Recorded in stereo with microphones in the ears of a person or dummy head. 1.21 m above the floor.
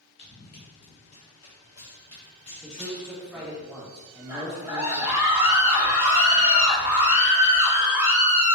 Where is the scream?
15° right (ahead or behind), 1.3 m.